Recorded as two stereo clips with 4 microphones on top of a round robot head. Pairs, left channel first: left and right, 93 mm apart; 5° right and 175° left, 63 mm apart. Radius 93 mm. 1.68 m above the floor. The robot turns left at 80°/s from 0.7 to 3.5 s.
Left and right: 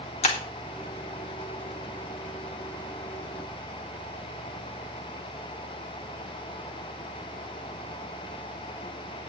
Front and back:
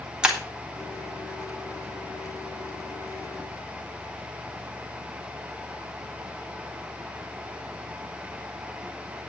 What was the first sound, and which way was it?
Breaking glass, 100° left.